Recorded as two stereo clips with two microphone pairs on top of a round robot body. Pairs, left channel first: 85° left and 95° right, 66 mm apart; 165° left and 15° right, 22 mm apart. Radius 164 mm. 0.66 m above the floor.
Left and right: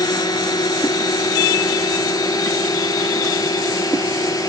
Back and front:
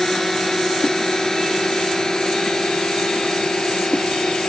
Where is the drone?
90° left; by 4.5 s 110° left.